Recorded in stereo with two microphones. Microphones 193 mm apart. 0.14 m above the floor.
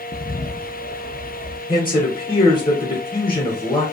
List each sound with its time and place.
0.1 s a bird: 35° left (ahead or behind), 0.5 m
1.7 s a man speaking: 25° left (ahead or behind), 1.2 m